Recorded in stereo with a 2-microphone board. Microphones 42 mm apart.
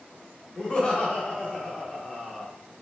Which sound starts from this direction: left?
Laughter, at 0.6 s.